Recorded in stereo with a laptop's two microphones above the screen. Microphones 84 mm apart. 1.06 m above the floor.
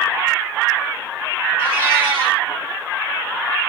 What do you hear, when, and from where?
1.6 s a cat meowing: 15° left (ahead or behind), 1.4 m